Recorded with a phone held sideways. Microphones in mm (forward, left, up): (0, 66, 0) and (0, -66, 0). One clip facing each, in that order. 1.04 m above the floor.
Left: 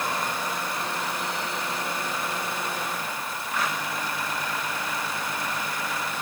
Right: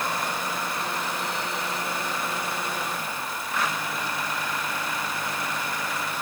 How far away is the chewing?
No chewing in this recording.